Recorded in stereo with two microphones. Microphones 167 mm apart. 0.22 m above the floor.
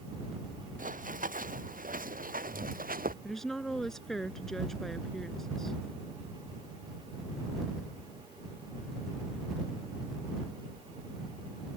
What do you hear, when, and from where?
0.8 s running footsteps: 60° right (ahead or behind); by 3.1 s 65° right (ahead or behind)
3.2 s a woman speaking: 5° left (ahead or behind)